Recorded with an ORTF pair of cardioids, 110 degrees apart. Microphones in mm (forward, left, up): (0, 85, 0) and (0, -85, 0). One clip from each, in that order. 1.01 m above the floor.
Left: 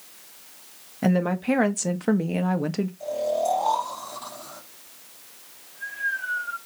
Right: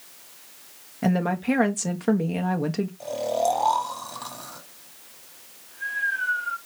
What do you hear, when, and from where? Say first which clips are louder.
1.0 s a woman speaking: left 1 dB; 5° left, 0.7 m
3.0 s snoring: even; 45° right, 2 m